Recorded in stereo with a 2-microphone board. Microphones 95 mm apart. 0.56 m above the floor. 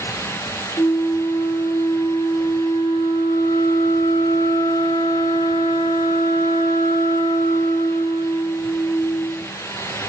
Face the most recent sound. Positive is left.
turn(degrees=45)  # may be behind; listen again after turning